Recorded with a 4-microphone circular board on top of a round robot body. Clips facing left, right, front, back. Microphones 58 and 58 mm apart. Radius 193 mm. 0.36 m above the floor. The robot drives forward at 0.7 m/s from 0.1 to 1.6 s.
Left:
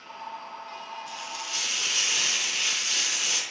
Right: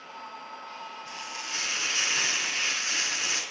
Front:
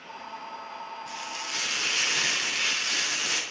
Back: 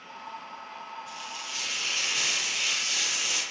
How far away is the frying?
About 5 m.